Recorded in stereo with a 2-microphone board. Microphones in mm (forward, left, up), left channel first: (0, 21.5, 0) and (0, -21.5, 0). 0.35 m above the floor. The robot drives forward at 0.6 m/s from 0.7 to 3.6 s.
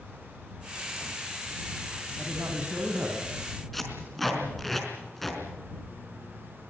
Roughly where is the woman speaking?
Right.